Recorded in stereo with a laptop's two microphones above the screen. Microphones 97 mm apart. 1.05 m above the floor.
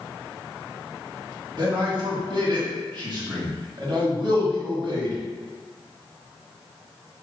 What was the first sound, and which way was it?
A man speaking, 50° right (ahead or behind).